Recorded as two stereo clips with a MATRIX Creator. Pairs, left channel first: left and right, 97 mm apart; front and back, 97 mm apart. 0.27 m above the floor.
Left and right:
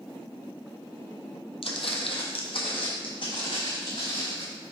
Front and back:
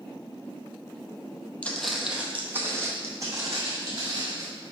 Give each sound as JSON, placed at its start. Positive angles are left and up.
{"t": 1.6, "sound": "footsteps", "azimuth_deg": 75, "distance_m": 0.6}